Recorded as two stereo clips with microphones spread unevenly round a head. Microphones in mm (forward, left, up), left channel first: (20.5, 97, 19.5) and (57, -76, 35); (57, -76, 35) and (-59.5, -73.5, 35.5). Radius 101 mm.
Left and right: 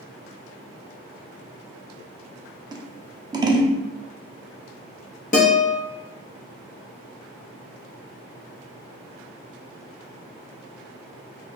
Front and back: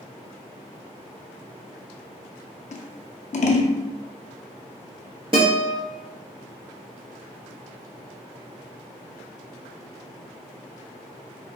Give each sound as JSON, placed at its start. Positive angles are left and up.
{"t": 2.7, "sound": "scissors", "azimuth_deg": -10, "distance_m": 0.5}
{"t": 5.3, "sound": "a guitar", "azimuth_deg": 140, "distance_m": 0.8}